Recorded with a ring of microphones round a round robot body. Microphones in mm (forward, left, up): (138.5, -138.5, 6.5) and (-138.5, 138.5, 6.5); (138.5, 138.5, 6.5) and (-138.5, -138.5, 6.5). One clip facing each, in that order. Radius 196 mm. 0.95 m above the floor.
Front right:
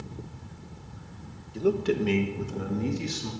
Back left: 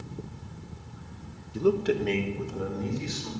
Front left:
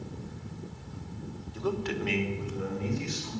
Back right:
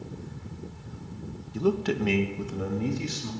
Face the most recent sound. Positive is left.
turn(degrees=-90)